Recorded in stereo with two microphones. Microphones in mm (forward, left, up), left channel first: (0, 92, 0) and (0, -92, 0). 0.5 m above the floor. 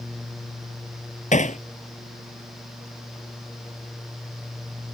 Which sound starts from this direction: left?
Hammering, at 1.3 s.